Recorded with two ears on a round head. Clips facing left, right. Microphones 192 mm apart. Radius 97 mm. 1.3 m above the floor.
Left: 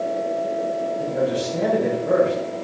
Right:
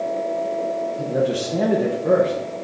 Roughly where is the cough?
I don't hear a cough.